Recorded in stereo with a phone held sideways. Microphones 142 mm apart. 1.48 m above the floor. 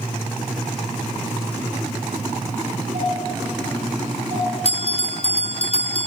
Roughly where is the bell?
Left.